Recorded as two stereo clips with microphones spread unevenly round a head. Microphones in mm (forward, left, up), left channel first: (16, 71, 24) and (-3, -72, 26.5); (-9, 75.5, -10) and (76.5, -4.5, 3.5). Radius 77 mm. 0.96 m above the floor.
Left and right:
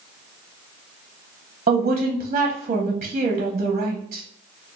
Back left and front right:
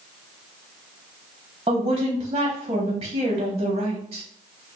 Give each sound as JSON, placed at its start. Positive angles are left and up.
{"t": 1.7, "sound": "a woman speaking", "azimuth_deg": -100, "distance_m": 0.6}